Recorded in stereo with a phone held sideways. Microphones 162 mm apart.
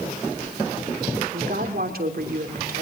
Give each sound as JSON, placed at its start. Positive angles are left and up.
{"t": 1.3, "sound": "a woman speaking", "side_deg": -70, "distance_m": 3.0}